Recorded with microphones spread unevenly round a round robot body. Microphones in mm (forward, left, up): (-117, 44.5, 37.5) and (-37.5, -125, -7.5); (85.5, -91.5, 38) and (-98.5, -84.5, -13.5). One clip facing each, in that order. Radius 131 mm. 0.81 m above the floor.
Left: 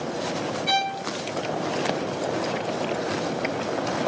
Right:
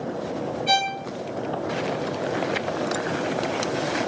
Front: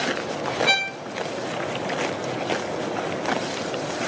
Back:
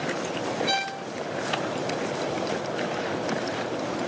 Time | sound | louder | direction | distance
0.7 | a violin | right 2 dB, front 1 dB | 40° left | 0.5 m